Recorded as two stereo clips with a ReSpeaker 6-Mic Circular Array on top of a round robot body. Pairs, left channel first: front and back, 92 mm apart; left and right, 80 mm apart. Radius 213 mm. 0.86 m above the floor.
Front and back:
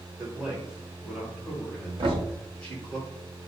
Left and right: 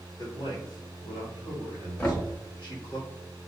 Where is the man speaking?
105° left, 1.6 m; by 3.0 s 55° left, 2.5 m.